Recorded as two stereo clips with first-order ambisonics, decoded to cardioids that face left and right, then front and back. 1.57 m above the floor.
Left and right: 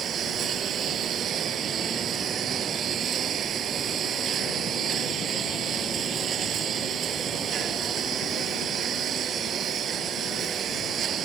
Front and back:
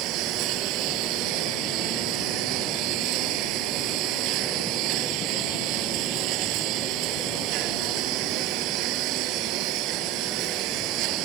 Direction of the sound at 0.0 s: 150° right.